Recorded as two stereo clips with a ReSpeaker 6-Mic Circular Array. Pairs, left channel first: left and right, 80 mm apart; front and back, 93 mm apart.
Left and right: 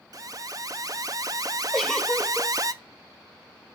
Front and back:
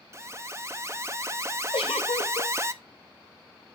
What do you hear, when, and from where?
0.1 s an alarm: 125° right, 0.6 m
1.7 s a giggle: 10° left, 1.0 m